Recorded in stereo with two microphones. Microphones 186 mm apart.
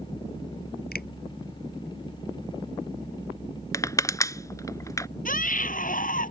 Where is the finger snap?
55° left (ahead or behind).